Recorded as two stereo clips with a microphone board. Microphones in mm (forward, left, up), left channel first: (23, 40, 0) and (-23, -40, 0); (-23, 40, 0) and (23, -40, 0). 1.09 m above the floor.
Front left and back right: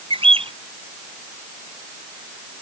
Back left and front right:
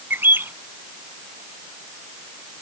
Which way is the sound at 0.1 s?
130° right.